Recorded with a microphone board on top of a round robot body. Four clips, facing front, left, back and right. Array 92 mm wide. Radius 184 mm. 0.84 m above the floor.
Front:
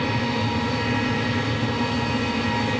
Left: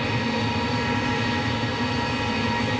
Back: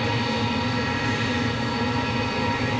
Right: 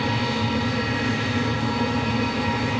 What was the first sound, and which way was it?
Only background noise.